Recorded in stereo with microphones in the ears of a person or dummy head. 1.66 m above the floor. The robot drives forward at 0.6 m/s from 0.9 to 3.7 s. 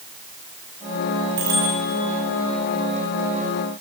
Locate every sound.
1.4 s a bicycle bell: 60° right (ahead or behind), 5.5 m